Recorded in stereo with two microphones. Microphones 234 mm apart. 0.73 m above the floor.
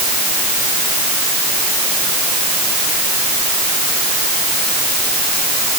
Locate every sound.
Only background noise.